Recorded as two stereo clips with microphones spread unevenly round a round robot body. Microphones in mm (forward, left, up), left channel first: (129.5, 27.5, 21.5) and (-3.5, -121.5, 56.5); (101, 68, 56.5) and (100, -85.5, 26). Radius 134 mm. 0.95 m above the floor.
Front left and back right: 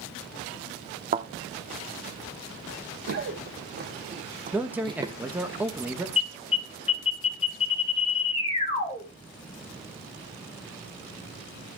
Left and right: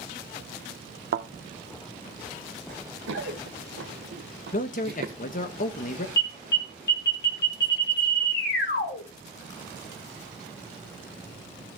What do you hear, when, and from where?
1.1 s a thud: 85° right, 0.9 m
2.7 s running footsteps: 120° right, 2.5 m; by 5.2 s 70° right, 1.2 m
4.5 s a man speaking: 140° left, 0.9 m
6.2 s an alarm: 110° left, 2.5 m